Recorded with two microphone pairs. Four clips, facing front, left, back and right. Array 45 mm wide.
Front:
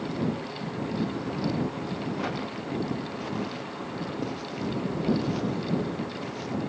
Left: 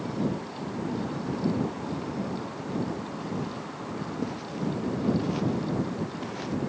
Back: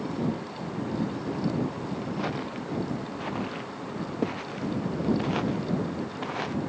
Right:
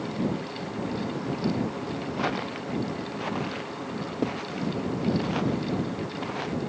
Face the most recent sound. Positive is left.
turn(degrees=-155)